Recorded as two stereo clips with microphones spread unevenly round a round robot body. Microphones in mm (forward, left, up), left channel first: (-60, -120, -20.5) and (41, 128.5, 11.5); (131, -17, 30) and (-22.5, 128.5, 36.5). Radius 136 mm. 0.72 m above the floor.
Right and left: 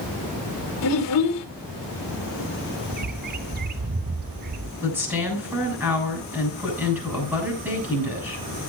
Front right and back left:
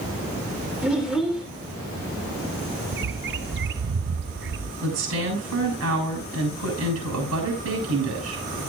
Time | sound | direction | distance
0.8 | a child speaking | 135° right | 1.9 m
2.9 | a bird | 125° left | 0.6 m
4.8 | a woman speaking | 150° left | 7.5 m